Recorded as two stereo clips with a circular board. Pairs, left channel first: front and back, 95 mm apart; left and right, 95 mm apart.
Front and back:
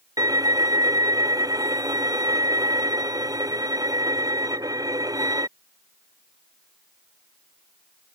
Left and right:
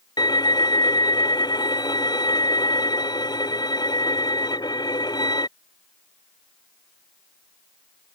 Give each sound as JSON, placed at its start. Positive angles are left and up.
{"t": 0.2, "sound": "a violin", "azimuth_deg": 130}